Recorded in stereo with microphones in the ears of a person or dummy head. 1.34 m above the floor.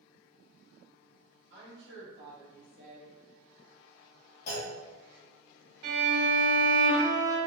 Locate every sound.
1.5 s a woman speaking: 65° right (ahead or behind), 1.7 m
4.5 s a clunk: 50° left (ahead or behind), 1.4 m
5.8 s a violin: 55° right (ahead or behind), 1.6 m